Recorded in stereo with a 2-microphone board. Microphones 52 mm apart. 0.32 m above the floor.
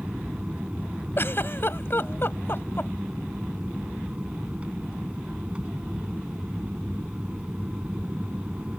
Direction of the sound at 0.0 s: 25° right (ahead or behind).